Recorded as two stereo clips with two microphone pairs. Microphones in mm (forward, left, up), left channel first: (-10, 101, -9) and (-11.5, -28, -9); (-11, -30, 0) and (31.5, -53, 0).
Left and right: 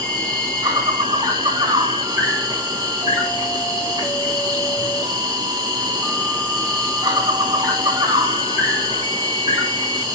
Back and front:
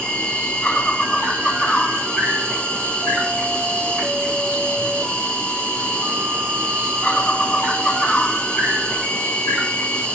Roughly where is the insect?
Behind right.